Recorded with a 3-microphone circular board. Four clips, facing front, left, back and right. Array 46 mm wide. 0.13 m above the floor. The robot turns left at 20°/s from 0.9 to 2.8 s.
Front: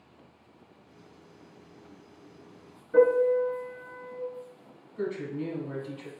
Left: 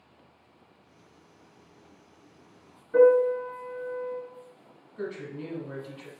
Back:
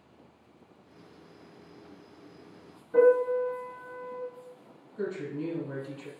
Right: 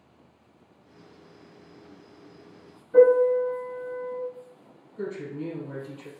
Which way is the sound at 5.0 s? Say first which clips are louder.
Right 2 dB, front 1 dB; 75° left.